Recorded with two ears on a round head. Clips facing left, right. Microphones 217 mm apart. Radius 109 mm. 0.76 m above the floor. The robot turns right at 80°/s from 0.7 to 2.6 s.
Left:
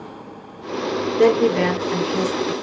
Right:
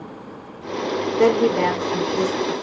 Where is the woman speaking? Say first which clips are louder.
Left 1 dB; 10° left, 1.5 m; by 2.5 s 115° left, 1.5 m.